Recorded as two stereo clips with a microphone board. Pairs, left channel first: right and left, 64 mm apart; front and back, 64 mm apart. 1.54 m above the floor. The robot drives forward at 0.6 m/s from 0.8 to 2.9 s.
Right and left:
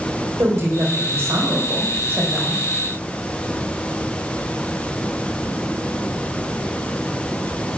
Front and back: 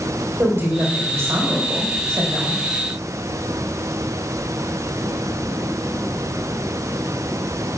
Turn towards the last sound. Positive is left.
turn(degrees=145)